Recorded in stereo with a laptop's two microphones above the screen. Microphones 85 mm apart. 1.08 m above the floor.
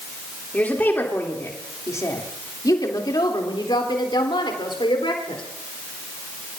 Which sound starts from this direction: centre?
A woman speaking, at 0.5 s.